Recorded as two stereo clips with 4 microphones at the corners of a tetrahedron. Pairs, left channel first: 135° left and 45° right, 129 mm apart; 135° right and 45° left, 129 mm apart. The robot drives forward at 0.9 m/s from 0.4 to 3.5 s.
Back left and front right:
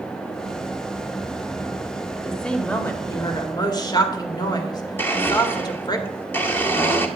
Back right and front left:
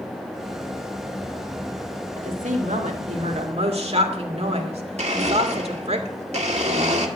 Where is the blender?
65° left, 1.7 m.